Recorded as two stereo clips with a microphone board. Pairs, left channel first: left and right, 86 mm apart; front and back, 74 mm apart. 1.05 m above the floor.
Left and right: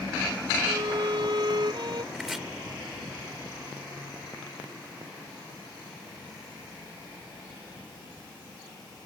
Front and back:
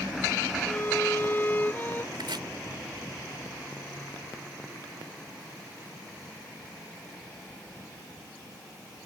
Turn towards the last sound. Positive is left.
turn(degrees=180)